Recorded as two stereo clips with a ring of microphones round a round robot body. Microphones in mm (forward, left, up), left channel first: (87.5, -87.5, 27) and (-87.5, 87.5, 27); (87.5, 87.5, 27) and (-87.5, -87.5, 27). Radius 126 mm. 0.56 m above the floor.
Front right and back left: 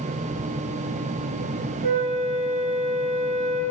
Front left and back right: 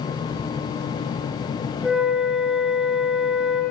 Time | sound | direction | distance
1.8 | a flute | 135° left | 6.5 m